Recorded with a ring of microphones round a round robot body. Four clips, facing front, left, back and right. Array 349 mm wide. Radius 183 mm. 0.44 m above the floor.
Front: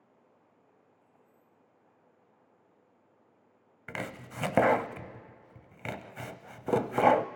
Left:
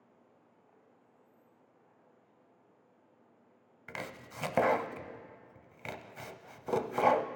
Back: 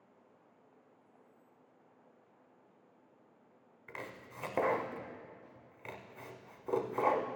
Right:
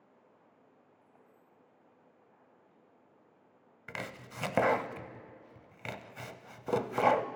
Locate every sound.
1.0 s keys jangling: 35° left, 3.5 m
3.9 s chopping: 5° right, 0.6 m